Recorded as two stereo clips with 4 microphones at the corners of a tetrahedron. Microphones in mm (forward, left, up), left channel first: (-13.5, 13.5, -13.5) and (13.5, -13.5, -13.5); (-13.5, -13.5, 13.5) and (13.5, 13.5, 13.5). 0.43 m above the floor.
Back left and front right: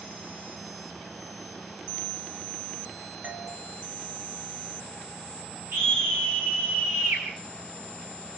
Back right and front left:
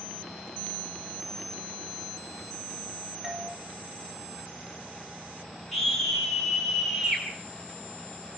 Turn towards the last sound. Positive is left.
turn(degrees=-50)